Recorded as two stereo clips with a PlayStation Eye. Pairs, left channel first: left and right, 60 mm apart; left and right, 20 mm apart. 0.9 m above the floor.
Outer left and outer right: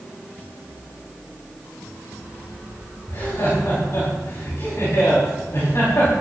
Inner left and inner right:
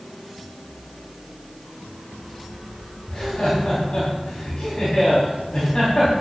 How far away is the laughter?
About 6 m.